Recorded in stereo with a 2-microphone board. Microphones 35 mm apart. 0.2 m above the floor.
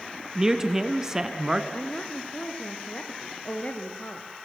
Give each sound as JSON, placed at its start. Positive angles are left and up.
{"t": 0.3, "sound": "a man speaking", "side_deg": -15, "distance_m": 1.9}
{"t": 1.7, "sound": "a woman speaking", "side_deg": 35, "distance_m": 3.0}